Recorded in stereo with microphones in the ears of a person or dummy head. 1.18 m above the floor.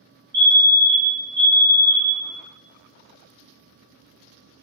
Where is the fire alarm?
20° right (ahead or behind), 1.0 m.